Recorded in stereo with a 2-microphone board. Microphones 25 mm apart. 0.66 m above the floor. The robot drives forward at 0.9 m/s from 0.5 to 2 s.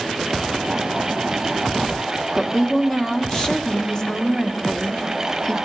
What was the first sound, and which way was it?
A woman speaking, 20° left (ahead or behind).